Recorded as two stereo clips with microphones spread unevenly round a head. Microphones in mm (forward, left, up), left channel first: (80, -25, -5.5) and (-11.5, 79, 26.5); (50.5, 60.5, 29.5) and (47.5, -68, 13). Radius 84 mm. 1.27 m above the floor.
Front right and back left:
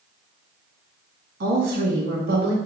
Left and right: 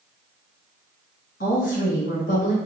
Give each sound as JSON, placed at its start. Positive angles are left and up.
{"t": 1.4, "sound": "a woman speaking", "azimuth_deg": 130, "distance_m": 1.8}